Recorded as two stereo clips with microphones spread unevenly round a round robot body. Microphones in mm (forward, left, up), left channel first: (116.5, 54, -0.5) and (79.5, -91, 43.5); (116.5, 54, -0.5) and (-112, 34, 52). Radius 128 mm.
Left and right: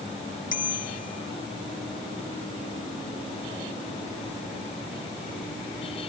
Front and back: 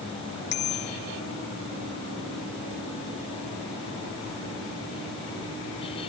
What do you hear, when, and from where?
0.5 s a bicycle bell: 50° left